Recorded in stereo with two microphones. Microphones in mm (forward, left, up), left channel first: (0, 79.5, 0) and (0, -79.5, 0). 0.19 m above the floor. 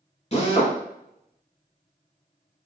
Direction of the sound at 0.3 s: 40° left (ahead or behind).